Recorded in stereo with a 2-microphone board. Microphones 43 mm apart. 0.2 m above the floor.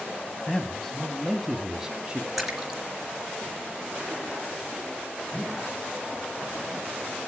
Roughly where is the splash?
Centre.